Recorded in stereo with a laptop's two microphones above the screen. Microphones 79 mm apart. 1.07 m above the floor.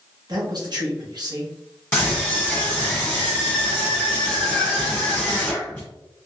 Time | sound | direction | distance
0.3 | a man speaking | 55° right (ahead or behind) | 1.3 m
1.9 | a scream | 15° left (ahead or behind) | 1.0 m